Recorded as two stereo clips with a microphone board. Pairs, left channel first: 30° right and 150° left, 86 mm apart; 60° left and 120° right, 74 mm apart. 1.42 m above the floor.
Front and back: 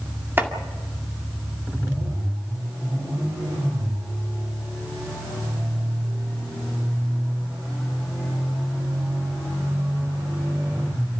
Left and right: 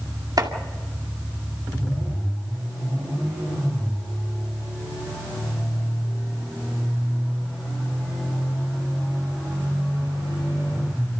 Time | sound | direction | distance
0.4 | chopping | 145° right | 2 m